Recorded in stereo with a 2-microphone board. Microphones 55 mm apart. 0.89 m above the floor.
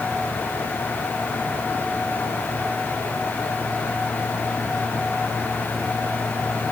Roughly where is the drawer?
I don't hear a drawer.